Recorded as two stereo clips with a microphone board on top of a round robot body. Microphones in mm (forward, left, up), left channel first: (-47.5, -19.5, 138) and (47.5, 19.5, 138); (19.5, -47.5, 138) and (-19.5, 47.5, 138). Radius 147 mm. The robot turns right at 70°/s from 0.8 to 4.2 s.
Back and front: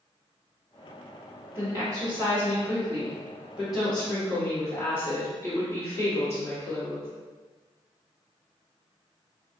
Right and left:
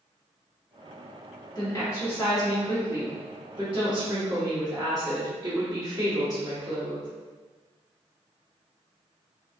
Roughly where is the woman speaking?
Ahead right.